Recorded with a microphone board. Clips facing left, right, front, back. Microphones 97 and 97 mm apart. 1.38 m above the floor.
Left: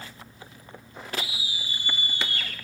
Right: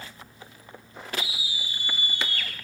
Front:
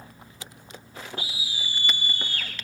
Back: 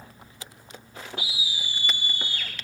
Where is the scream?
45° left, 2.5 m; by 2.5 s 30° left, 3 m.